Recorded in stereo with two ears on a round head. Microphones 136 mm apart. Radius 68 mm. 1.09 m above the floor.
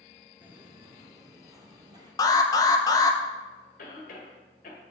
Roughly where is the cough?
Left.